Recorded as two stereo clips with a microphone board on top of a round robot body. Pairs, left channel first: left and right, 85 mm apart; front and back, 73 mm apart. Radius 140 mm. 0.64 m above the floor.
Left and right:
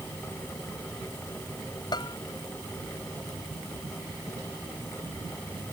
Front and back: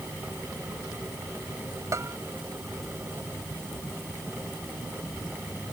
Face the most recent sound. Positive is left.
turn(degrees=130)